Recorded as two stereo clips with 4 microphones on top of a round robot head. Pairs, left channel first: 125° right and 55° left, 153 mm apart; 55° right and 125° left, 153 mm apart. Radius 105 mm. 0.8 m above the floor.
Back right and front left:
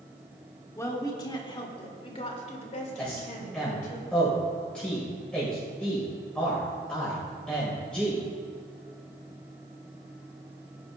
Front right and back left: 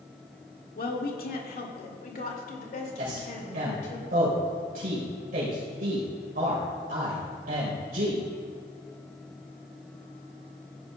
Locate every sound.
0.8 s a woman speaking: 55° right, 1.8 m; by 4.0 s 95° right, 3 m
3.0 s a man speaking: 155° left, 4 m